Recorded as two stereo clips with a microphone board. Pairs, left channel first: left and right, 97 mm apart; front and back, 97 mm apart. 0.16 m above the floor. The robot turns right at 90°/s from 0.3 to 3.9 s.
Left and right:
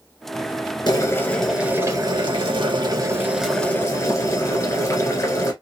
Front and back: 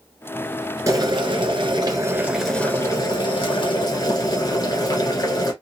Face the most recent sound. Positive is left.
turn(degrees=35)